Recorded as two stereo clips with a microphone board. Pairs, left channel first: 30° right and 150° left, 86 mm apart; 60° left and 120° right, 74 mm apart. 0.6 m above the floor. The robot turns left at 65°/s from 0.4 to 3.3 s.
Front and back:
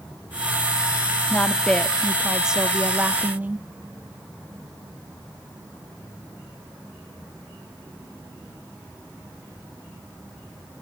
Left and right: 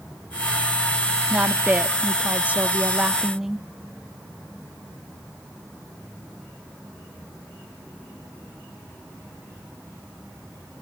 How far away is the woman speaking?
About 0.6 m.